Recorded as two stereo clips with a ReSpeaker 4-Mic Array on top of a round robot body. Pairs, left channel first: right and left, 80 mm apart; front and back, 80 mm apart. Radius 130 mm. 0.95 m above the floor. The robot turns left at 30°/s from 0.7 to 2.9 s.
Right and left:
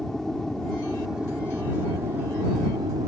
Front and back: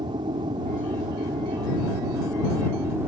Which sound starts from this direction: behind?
An aircraft, at 0.0 s.